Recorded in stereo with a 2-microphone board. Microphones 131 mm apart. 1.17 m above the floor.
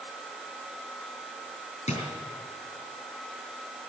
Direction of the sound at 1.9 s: 60° left (ahead or behind).